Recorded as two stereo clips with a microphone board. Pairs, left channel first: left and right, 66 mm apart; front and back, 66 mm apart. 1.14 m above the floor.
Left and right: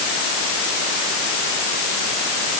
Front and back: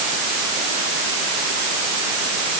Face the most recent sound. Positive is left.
No sound to turn to.